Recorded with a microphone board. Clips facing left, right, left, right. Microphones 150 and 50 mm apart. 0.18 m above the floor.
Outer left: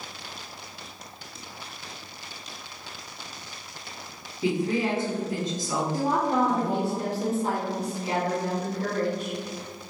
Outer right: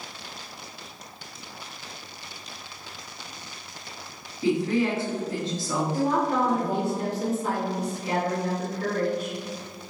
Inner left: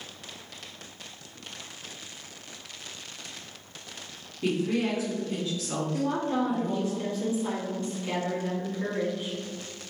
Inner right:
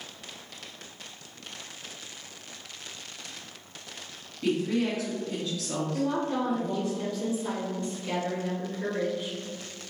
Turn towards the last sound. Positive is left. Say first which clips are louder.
# even, inner left 1 dB
turn(degrees=30)  # may be behind; listen again after turning